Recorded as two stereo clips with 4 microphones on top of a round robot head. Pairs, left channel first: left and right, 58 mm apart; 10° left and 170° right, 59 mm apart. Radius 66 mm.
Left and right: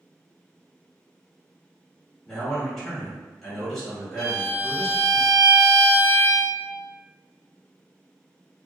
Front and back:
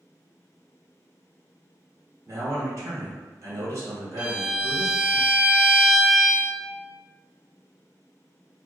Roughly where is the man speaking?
Behind.